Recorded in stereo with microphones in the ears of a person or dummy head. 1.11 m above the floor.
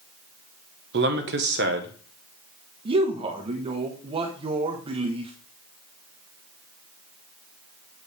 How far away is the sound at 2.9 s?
About 1.0 m.